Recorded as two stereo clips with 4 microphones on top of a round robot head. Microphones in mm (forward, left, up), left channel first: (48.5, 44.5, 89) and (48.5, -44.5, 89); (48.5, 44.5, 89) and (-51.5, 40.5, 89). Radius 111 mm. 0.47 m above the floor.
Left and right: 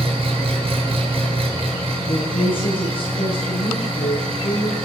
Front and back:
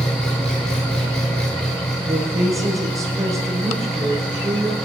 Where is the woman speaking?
120° left, 9.5 m.